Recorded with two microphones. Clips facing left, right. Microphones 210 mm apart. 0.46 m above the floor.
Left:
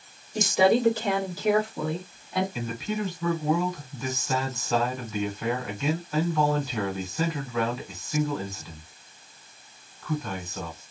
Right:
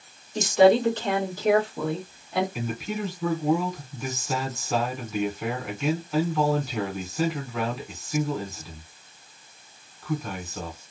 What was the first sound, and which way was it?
A woman speaking, 15° left (ahead or behind).